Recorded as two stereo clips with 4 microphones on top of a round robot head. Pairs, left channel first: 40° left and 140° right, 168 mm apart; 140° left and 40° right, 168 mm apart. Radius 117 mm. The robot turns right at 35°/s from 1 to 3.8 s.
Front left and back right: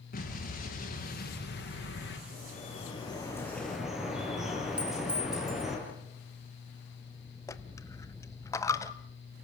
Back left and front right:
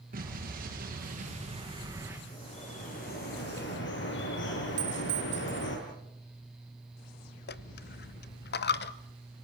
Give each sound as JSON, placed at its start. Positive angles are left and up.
{"t": 0.1, "sound": "an explosion", "azimuth_deg": 0, "distance_m": 6.5}
{"t": 2.3, "sound": "dripping", "azimuth_deg": 80, "distance_m": 6.5}
{"t": 4.8, "sound": "a clink", "azimuth_deg": -60, "distance_m": 5.0}
{"t": 7.5, "sound": "a dropped coin", "azimuth_deg": 110, "distance_m": 1.0}